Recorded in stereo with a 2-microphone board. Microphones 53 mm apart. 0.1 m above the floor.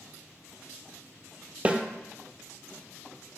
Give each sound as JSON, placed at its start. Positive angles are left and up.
{"t": 1.6, "sound": "a snare drum", "side_deg": -25, "distance_m": 0.7}